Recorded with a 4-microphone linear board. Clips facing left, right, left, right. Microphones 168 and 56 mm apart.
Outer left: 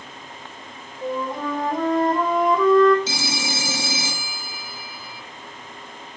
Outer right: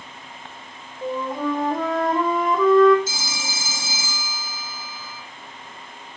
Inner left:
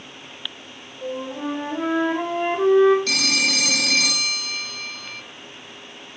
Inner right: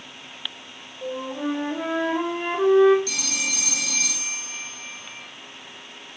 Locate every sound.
1.0 s a flute: centre (ahead or behind), 4.5 m
3.1 s a phone ringing: 70° left (ahead or behind), 2.5 m